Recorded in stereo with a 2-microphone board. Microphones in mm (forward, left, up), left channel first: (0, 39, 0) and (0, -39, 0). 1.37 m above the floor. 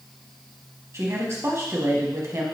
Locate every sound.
0.9 s a woman speaking: 40° right (ahead or behind), 1.1 m